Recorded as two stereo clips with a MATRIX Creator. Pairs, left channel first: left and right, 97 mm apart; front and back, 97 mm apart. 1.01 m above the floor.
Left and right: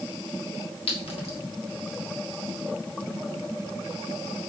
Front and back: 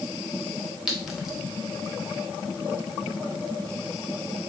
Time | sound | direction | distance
0.9 | a clink | 95° left | 0.8 m